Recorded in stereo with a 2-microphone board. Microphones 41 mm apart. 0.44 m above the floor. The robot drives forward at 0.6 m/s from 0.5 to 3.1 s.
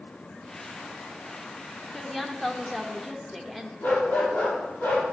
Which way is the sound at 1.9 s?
5° left (ahead or behind).